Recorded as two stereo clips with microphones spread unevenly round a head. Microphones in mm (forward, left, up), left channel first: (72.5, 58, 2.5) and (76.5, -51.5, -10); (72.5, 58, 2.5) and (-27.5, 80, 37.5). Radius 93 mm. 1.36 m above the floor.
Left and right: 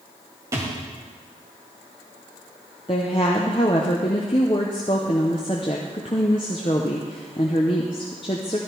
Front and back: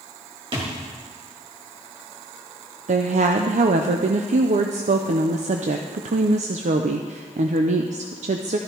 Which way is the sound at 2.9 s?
155° left.